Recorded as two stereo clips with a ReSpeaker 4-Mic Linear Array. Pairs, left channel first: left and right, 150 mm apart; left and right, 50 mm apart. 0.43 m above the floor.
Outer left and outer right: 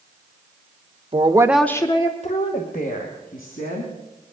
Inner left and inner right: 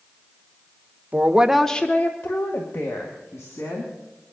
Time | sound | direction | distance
1.1 | a woman speaking | 40° right (ahead or behind) | 1.1 m